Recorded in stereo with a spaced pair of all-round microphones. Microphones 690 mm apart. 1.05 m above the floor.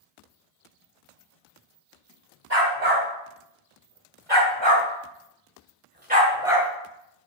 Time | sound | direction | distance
2.5 | a dog barking | 65° right (ahead or behind) | 2.5 m